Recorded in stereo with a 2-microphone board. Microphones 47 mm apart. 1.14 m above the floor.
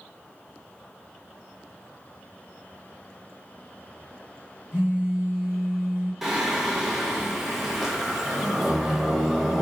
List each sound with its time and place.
4.7 s a phone buzzing: 75° left (ahead or behind), 1.7 m
6.2 s singing: 5° right (ahead or behind), 0.6 m